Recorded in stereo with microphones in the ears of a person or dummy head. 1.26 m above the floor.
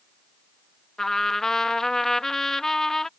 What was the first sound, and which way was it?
A trumpet, centre (ahead or behind).